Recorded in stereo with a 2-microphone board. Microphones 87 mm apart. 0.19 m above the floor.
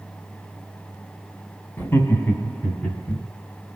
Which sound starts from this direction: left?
Laughter, at 1.8 s.